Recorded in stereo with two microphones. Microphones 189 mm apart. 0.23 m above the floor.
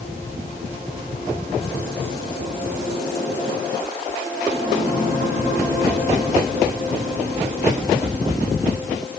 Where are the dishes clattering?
No dishes clattering in this recording.